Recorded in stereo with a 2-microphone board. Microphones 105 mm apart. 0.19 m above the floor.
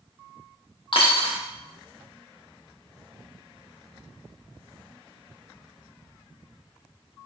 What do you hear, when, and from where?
0.9 s a dropped coin: 50° left (ahead or behind), 1.2 m